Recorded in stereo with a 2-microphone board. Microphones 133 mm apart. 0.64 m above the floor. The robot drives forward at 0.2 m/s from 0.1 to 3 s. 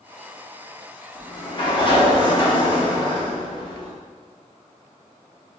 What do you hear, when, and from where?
1.1 s a sliding door: 40° left (ahead or behind), 0.8 m; by 3.9 s 35° left (ahead or behind), 0.8 m